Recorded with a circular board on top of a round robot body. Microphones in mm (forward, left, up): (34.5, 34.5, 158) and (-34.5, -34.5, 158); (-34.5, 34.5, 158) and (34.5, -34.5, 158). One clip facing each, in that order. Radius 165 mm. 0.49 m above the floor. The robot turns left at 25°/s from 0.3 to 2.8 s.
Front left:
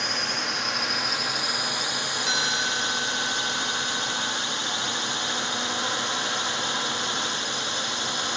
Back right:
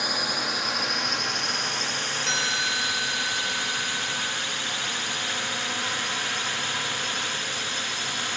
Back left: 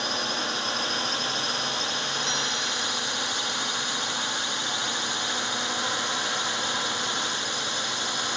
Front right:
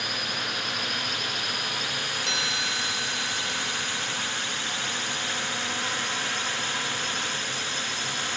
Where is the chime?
40° right; by 4.3 s 50° right.